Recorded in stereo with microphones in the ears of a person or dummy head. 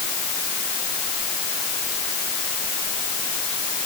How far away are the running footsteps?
I don't hear running footsteps.